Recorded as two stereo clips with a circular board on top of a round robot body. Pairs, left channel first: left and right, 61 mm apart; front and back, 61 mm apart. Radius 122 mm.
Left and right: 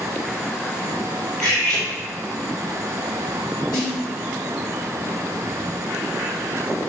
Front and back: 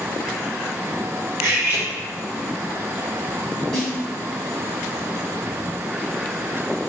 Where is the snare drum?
85° left, 1.4 m.